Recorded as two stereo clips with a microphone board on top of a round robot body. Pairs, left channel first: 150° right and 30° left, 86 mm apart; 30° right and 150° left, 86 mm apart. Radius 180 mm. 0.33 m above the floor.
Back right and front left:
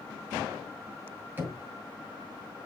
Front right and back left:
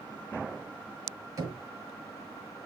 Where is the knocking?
100° left, 4.5 m.